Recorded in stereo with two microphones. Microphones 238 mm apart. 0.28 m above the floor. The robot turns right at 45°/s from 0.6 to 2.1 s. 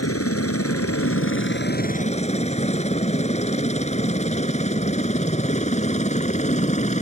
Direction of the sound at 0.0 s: 70° left (ahead or behind).